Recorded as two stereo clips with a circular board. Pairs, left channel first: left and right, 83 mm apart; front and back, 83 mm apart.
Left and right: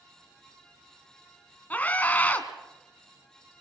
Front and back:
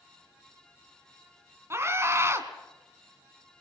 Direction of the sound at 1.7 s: 145° left.